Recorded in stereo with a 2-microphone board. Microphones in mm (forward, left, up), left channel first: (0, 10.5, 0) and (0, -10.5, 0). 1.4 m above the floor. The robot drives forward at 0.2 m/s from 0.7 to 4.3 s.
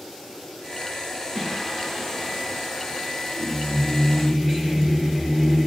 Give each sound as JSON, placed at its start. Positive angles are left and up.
{"t": 1.4, "sound": "singing", "side_deg": 5, "distance_m": 3.0}